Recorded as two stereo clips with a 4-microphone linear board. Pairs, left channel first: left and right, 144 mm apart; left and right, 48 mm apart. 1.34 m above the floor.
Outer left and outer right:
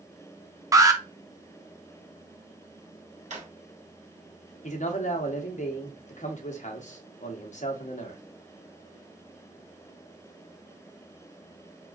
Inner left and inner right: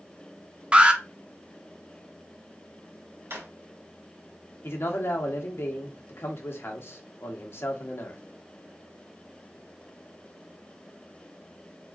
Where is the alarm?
25° right (ahead or behind), 0.5 m.